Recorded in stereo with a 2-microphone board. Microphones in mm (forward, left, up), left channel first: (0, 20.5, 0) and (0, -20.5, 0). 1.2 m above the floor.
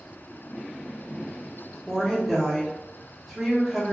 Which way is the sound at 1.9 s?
Centre (ahead or behind).